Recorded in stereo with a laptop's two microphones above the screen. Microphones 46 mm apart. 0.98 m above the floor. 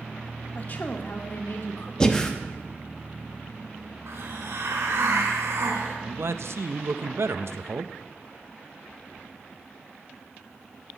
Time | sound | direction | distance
0.6 | a woman speaking | 40° left (ahead or behind) | 1.8 m
2.0 | breathing | 15° left (ahead or behind) | 0.8 m
4.1 | a hiss | 70° right (ahead or behind) | 3.5 m
6.0 | a man speaking | 65° right (ahead or behind) | 0.6 m